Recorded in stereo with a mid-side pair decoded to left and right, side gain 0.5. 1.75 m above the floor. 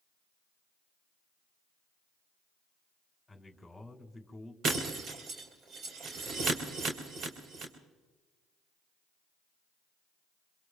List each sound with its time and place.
3.3 s a man speaking: 10° left, 2.5 m
4.6 s breaking glass: 60° right, 4 m